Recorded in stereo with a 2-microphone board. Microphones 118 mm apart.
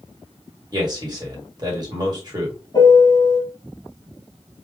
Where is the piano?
35° left (ahead or behind), 3 m.